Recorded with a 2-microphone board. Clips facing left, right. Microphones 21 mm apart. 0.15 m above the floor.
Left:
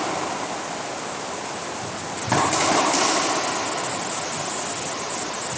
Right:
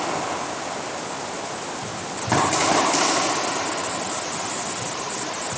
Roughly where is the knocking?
I don't hear knocking.